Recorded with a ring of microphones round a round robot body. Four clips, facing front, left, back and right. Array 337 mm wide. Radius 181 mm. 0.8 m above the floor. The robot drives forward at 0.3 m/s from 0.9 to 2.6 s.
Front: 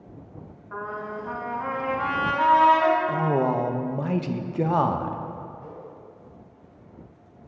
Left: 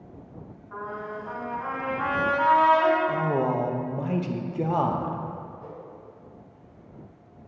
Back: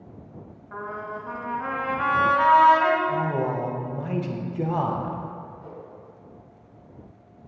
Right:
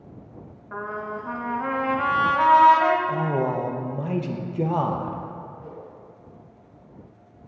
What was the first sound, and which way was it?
A trumpet, 80° right.